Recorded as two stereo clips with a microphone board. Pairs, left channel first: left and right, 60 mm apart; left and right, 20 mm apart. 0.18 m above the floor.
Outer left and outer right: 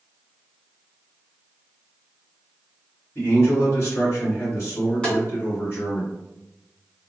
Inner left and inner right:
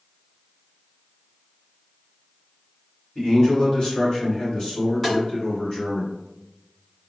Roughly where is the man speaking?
Left.